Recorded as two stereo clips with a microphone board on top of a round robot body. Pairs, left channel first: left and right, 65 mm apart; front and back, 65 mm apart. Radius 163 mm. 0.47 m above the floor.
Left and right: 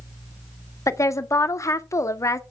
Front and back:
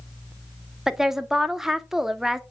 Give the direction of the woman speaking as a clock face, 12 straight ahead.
9 o'clock.